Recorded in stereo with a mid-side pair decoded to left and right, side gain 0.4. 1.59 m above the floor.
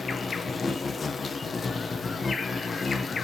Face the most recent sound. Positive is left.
turn(degrees=40)